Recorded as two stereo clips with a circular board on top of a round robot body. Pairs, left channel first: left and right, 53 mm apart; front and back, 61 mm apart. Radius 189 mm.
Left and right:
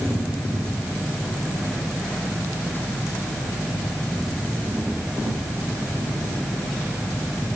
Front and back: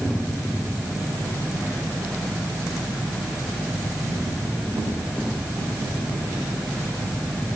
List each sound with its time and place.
Only background noise.